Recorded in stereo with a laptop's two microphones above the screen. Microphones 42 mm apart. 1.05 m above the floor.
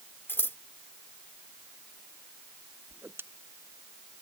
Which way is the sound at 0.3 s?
65° left (ahead or behind).